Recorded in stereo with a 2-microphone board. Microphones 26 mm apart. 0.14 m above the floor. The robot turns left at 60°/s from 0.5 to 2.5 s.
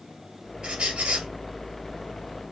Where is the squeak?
45° right, 1.6 m; by 1.3 s 85° right, 1.6 m.